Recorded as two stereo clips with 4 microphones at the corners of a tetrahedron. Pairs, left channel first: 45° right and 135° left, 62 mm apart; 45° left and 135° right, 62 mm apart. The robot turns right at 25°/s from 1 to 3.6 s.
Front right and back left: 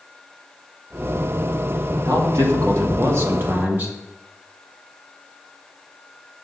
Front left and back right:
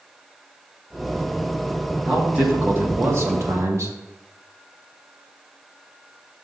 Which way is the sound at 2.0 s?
150° left.